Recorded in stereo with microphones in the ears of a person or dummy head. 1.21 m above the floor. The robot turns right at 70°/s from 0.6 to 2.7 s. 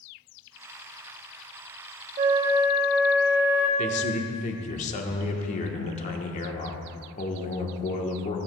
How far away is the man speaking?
About 1.1 m.